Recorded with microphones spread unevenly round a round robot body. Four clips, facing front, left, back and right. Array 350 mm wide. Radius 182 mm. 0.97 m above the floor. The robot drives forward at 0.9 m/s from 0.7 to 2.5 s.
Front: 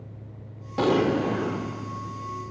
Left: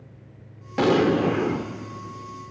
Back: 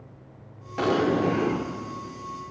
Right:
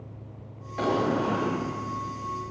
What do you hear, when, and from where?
0.8 s an explosion: 65° left, 0.9 m; by 1.7 s 120° left, 1.0 m